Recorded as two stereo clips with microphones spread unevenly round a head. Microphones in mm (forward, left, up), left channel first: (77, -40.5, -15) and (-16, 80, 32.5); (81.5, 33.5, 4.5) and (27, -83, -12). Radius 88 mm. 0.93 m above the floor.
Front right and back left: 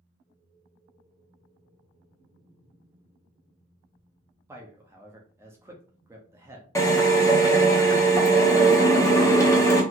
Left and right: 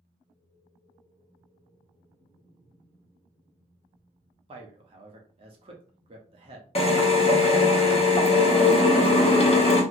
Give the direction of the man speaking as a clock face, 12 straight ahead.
5 o'clock.